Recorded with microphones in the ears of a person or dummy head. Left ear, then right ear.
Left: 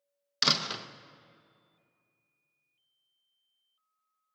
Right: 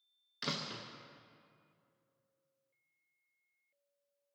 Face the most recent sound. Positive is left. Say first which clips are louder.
# left 12 dB
turn(degrees=45)  # may be behind; listen again after turning